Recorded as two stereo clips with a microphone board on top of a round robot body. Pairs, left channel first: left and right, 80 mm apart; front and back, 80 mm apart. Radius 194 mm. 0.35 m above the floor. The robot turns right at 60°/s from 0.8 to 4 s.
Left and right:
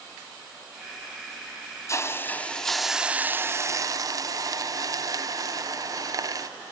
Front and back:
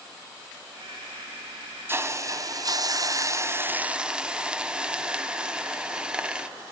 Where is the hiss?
125° left, 1.0 m; by 6.5 s 105° right, 1.0 m.